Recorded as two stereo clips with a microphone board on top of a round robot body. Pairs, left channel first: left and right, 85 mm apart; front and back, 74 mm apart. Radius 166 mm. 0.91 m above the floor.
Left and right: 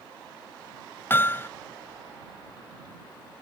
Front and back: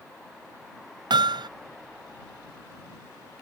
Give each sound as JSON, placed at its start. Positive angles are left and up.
{"t": 1.1, "sound": "hammering", "azimuth_deg": 155}